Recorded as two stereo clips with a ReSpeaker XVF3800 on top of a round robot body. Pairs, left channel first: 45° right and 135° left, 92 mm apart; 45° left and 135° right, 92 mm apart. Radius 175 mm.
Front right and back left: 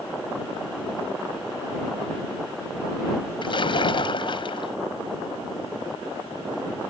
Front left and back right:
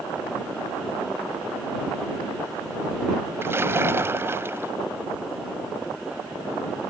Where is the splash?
70° right.